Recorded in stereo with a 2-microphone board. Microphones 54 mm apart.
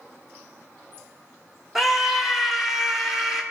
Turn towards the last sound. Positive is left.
turn(degrees=-5)  # may be behind; listen again after turning